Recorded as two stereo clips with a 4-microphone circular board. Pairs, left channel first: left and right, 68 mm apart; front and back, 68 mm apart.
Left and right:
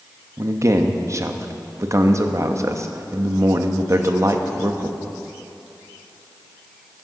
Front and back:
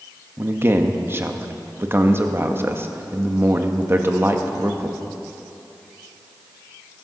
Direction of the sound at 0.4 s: 130° right.